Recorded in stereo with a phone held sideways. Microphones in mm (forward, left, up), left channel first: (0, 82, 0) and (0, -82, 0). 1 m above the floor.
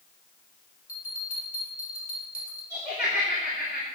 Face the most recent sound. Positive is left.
turn(degrees=75)  # may be behind; listen again after turning